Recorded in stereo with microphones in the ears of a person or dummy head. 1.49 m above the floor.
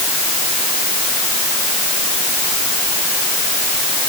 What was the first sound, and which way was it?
Only background noise.